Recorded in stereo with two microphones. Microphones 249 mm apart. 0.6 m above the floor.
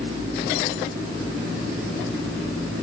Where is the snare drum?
I don't hear a snare drum.